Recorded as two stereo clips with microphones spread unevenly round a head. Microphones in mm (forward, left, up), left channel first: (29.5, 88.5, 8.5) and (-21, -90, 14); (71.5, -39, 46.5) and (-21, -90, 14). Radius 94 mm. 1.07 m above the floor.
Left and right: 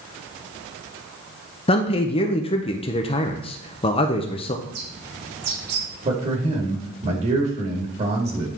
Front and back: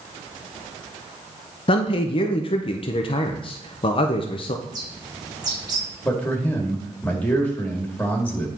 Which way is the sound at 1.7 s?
50° left.